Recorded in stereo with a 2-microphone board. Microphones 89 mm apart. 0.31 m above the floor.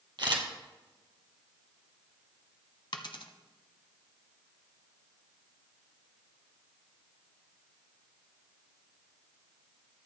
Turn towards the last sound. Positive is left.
turn(degrees=70)  # may be behind; listen again after turning